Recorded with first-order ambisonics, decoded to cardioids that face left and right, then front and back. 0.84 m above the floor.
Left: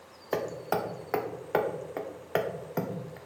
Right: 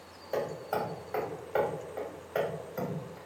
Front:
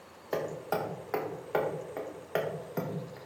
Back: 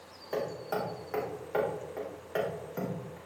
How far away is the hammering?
About 1.0 m.